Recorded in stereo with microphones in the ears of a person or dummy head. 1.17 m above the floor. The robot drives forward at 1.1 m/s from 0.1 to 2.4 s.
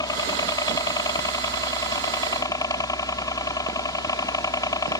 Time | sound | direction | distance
0.0 | a helicopter | 20° left (ahead or behind) | ?